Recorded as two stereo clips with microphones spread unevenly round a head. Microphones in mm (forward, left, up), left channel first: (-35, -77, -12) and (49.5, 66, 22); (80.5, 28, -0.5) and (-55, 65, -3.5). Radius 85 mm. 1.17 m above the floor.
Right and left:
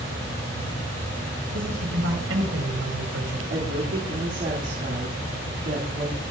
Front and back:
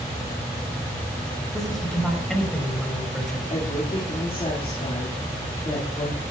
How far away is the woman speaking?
About 2.5 m.